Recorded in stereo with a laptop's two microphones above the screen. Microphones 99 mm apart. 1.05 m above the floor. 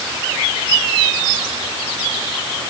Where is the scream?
No scream in this recording.